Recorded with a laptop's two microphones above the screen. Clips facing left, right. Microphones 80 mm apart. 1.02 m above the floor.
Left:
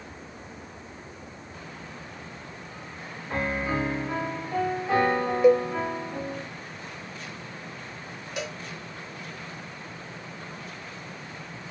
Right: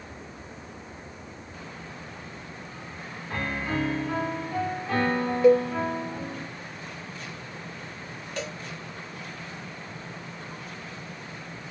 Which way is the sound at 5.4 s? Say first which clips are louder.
Right 1 dB; 15° left (ahead or behind).